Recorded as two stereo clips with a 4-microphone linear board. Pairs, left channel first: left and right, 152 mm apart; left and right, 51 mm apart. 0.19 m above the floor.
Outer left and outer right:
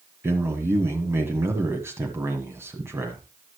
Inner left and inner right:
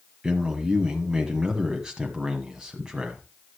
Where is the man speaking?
15° right (ahead or behind), 1.4 m.